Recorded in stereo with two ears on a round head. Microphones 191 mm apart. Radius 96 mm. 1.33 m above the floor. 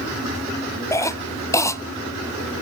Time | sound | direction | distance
0.9 | a cough | 15° left (ahead or behind) | 0.8 m